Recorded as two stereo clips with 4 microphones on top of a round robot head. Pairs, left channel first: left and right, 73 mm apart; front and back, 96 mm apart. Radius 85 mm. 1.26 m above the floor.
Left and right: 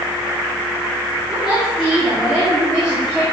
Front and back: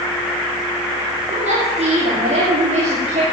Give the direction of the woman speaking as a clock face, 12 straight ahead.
6 o'clock.